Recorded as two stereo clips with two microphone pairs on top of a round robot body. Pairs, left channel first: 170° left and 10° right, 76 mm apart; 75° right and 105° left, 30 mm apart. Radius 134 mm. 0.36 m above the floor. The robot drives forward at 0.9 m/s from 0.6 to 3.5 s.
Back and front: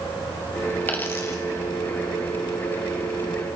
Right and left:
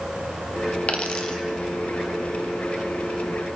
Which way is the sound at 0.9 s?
120° right.